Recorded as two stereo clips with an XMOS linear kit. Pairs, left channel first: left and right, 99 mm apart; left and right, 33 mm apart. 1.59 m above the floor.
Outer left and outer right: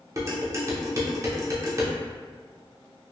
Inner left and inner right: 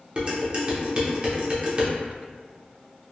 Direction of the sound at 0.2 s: 30° right (ahead or behind).